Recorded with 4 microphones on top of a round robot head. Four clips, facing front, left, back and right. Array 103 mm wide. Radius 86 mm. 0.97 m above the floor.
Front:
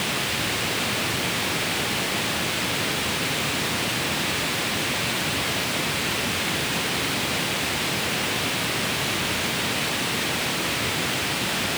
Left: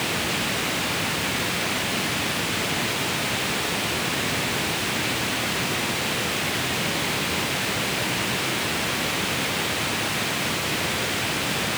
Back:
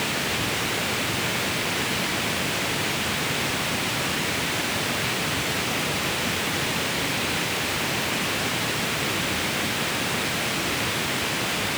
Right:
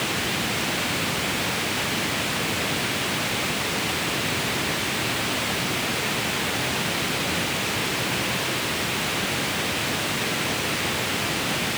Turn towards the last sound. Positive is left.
No sound to turn to.